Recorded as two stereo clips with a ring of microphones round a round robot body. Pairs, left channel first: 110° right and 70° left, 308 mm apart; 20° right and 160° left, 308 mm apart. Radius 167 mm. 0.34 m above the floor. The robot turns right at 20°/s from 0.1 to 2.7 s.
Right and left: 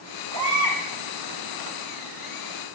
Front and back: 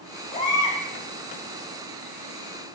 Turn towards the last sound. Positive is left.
turn(degrees=95)